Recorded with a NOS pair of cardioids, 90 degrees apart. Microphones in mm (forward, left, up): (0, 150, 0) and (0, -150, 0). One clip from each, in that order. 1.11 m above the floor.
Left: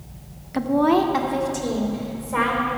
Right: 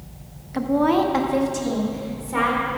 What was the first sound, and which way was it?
A woman speaking, 10° left.